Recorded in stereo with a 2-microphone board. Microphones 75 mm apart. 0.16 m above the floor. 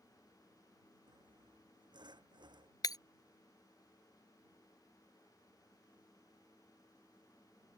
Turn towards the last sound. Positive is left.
turn(degrees=60)  # may be behind; listen again after turning